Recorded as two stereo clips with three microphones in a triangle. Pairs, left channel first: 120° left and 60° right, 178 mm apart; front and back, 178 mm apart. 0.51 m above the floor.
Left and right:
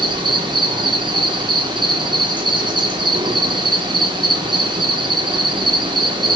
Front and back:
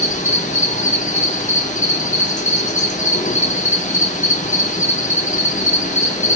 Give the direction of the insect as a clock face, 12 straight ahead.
12 o'clock.